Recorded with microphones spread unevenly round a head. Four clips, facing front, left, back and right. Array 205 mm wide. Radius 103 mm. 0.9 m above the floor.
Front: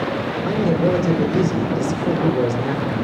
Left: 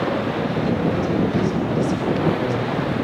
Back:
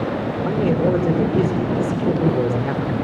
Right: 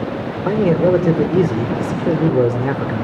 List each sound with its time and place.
0.5 s a man speaking: 80° right, 2.5 m